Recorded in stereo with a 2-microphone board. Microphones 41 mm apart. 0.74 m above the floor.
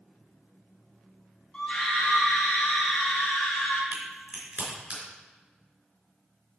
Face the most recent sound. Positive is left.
turn(degrees=-40)  # may be behind; listen again after turning